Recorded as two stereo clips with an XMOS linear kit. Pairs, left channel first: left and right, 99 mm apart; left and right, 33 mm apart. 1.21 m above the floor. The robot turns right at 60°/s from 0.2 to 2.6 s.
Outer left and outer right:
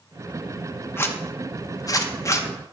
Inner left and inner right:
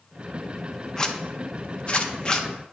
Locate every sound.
1.0 s a zipper: 25° left (ahead or behind), 0.7 m